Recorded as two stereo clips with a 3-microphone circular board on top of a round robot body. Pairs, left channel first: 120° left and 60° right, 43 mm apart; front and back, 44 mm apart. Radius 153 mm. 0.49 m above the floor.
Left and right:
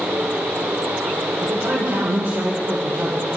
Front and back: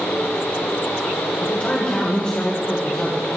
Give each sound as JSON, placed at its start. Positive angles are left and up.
{"t": 1.4, "sound": "a man speaking", "azimuth_deg": -55, "distance_m": 1.5}